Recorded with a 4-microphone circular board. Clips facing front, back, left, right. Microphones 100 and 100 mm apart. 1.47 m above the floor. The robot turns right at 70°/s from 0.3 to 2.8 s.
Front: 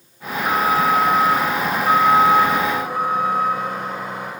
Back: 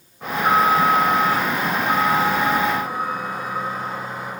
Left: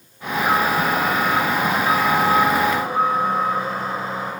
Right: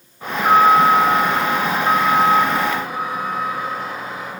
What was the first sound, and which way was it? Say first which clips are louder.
An alarm: back 2 dB, right 6 dB; 145° right.